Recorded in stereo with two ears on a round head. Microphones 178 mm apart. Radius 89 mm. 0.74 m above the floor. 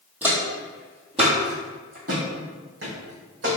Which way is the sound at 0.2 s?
10° right (ahead or behind).